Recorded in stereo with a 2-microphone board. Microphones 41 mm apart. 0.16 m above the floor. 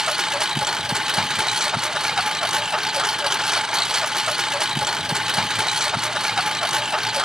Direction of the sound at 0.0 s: 15° right (ahead or behind).